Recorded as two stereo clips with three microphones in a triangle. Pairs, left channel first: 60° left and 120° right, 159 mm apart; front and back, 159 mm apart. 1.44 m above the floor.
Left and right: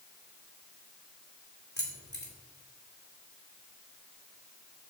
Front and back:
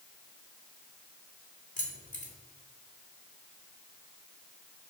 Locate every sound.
1.8 s keys jangling: 45° left, 2.5 m